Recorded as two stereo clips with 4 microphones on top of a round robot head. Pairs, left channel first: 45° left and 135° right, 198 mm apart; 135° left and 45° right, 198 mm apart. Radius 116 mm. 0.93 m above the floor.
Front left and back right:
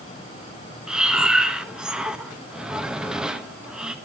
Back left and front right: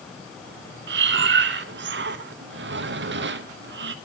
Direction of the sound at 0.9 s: 50° right.